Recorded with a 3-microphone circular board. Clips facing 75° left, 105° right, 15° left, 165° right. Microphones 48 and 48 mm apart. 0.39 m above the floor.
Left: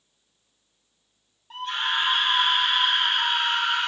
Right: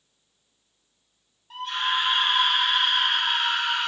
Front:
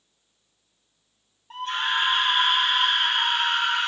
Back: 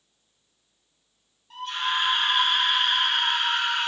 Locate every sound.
1.5 s a scream: 10° right, 0.9 m